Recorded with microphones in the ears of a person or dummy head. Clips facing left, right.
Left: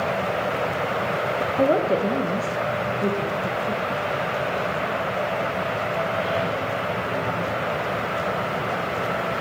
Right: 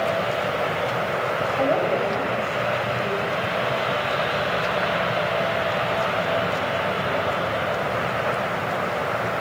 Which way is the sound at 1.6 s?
35° left (ahead or behind).